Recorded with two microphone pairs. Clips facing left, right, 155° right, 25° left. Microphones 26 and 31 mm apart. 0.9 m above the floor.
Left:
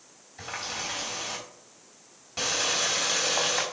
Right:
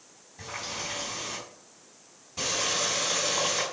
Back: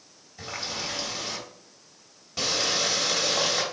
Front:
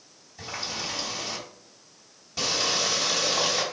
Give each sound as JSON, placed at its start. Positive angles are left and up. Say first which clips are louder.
{"t": 0.4, "sound": "a running tap", "louder": "left 2 dB, even", "azimuth_deg": 135, "distance_m": 3.0}